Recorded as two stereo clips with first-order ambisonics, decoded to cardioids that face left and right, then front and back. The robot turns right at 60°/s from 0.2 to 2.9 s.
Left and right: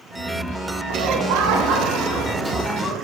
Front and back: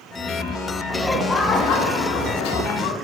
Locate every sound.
0.9 s laughter: 100° right, 0.5 m; by 2.9 s 20° left, 0.5 m